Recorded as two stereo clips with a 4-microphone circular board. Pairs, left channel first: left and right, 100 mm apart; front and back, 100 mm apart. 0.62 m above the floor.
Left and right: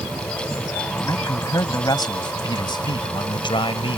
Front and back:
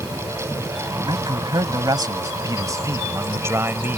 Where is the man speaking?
140° left; by 4.0 s 110° left.